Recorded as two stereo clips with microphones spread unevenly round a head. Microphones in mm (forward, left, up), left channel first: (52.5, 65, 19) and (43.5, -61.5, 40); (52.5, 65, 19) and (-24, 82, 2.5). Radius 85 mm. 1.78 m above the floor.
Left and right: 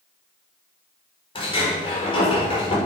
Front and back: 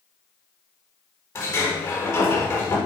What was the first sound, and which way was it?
A sliding door, 35° left.